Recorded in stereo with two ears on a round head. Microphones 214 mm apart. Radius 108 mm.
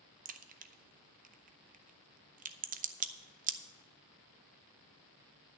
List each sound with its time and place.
0.2 s a crack: 35° right (ahead or behind), 0.7 m